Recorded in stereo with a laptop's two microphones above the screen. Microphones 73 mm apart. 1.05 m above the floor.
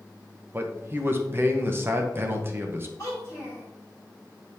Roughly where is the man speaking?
Right.